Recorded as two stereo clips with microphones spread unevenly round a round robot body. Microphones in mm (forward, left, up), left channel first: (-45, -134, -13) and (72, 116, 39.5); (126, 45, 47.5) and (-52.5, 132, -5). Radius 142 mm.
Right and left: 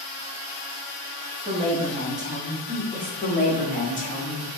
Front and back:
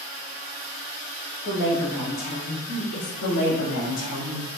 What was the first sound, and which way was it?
A woman speaking, straight ahead.